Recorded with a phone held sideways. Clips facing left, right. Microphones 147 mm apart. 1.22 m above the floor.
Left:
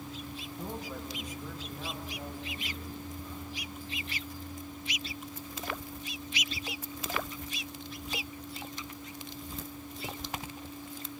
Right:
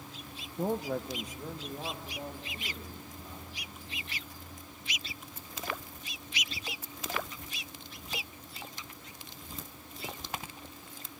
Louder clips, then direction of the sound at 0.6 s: Right 9 dB; 55° right (ahead or behind).